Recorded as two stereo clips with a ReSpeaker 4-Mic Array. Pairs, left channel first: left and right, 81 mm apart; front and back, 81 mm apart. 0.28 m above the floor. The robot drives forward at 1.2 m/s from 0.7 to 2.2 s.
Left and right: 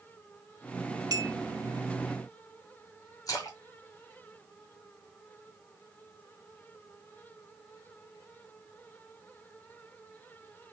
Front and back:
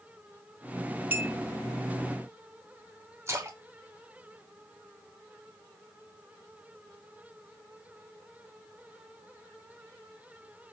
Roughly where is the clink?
Behind right.